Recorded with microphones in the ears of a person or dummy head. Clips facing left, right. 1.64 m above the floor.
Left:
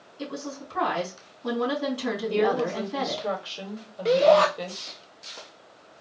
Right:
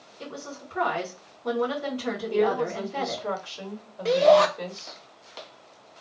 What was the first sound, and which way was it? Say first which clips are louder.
A woman speaking: left 4 dB; 85° left.